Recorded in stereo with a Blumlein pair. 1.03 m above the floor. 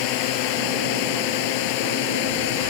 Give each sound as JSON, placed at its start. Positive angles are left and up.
{"t": 0.0, "sound": "a drone", "azimuth_deg": 45}